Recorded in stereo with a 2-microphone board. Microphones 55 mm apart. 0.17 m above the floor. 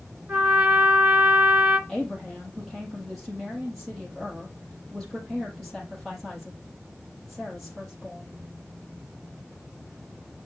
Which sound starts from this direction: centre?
A woman speaking, at 1.9 s.